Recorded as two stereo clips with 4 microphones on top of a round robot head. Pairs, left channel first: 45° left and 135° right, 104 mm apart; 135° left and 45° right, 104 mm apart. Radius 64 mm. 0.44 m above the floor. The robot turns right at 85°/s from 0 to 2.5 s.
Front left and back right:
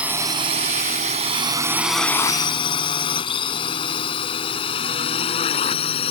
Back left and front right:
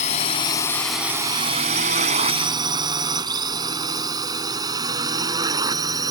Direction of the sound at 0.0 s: 145° left.